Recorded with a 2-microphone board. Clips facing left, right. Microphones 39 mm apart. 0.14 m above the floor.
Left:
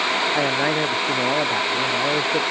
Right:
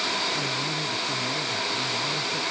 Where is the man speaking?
70° left (ahead or behind); by 2.4 s 75° left (ahead or behind).